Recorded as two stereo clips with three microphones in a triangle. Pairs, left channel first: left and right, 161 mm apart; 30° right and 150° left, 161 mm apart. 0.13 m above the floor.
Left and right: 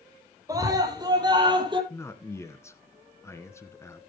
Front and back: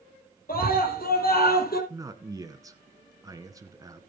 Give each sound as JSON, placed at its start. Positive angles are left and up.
{"t": 0.5, "sound": "a scream", "azimuth_deg": -25, "distance_m": 4.5}
{"t": 1.9, "sound": "a man speaking", "azimuth_deg": 130, "distance_m": 1.4}